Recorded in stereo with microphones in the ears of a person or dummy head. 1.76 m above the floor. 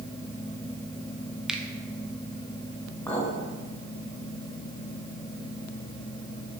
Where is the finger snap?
Centre (ahead or behind), 0.6 m.